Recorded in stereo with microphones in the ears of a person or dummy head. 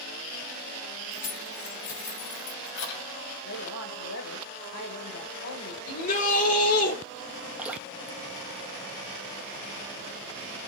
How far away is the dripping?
About 1.6 m.